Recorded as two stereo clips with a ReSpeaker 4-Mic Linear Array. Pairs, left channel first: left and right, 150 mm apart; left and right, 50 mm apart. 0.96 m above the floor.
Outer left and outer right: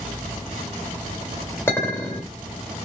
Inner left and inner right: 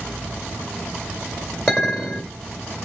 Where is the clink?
15° left (ahead or behind), 2 m.